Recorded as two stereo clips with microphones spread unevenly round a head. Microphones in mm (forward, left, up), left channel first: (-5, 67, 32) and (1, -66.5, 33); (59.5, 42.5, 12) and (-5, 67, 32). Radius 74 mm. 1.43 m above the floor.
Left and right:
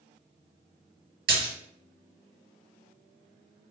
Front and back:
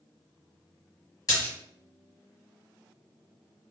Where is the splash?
95° right, 2.5 m.